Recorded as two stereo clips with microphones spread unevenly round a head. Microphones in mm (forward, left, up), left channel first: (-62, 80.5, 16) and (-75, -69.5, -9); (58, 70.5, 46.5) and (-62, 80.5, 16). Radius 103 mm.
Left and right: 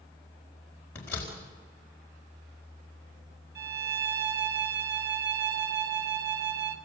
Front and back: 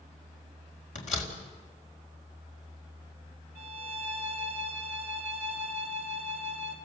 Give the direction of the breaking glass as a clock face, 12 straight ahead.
I don't hear breaking glass.